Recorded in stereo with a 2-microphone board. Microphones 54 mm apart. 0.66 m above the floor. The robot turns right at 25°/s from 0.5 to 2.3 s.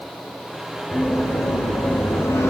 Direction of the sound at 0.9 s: 15° left (ahead or behind).